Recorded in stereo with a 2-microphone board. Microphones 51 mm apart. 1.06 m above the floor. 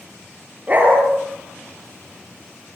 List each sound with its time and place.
0.7 s a dog barking: 35° right (ahead or behind), 7.5 m